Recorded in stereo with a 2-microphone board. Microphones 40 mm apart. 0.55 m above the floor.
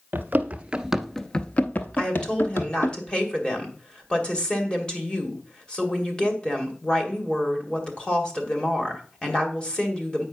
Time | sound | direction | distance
0.1 | running footsteps | 50° right (ahead or behind) | 0.7 m
1.9 | a woman speaking | 20° left (ahead or behind) | 2 m